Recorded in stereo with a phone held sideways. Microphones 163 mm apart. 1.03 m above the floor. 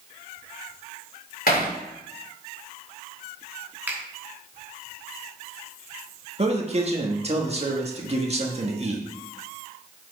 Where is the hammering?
65° left (ahead or behind), 2.5 m.